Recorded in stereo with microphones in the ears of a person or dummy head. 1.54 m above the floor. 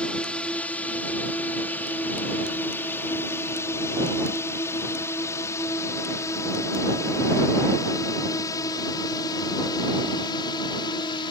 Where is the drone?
10° left (ahead or behind); by 11.3 s 25° left (ahead or behind).